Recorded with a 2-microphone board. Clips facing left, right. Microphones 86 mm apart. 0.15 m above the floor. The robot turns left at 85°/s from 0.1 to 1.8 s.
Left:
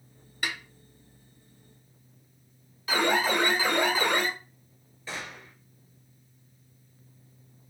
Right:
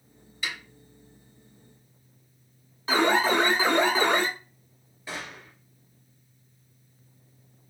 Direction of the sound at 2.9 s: 30° right (ahead or behind).